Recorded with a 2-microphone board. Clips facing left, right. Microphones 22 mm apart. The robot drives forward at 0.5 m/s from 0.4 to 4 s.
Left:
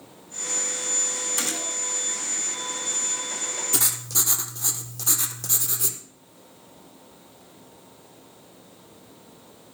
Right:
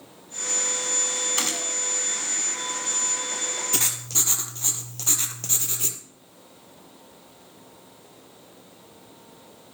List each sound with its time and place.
1.4 s a gunshot: 35° right (ahead or behind), 1.7 m; by 1.8 s 30° right (ahead or behind), 1.7 m
3.7 s writing: 25° right (ahead or behind), 1.4 m; by 6.0 s 20° right (ahead or behind), 1.5 m